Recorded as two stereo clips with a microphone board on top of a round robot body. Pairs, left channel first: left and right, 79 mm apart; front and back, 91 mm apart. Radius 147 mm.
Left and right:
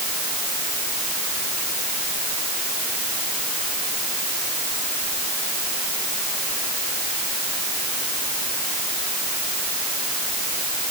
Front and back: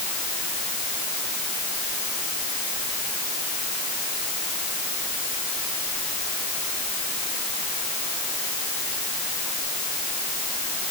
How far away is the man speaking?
I don't hear a man speaking.